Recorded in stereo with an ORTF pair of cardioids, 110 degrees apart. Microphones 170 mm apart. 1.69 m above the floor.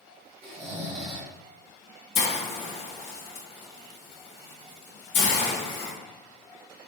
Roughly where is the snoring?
Ahead right.